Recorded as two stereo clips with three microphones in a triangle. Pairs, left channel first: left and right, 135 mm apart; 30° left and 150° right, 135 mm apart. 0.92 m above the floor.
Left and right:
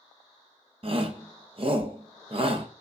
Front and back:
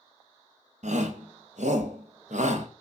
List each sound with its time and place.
0.8 s a shout: 135° right, 0.6 m